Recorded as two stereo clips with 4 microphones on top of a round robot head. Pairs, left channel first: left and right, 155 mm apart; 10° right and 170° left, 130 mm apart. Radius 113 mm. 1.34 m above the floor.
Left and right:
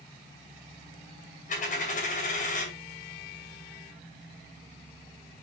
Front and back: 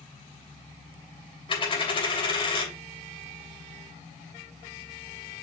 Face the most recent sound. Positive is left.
turn(degrees=40)